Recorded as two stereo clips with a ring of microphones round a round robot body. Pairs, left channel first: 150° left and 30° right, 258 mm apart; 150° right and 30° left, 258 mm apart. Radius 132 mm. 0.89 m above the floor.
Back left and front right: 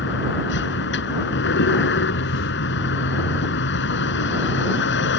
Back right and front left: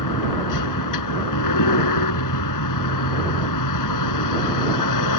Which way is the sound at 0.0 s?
160° right.